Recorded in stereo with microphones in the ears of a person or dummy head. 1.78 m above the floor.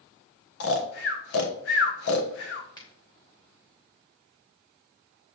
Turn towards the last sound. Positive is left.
turn(degrees=25)  # may be behind; listen again after turning